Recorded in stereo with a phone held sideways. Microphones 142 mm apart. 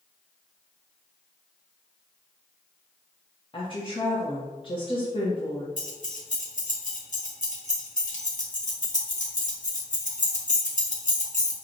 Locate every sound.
3.5 s a woman speaking: 35° left (ahead or behind), 0.7 m
5.8 s keys jangling: 60° left (ahead or behind), 0.9 m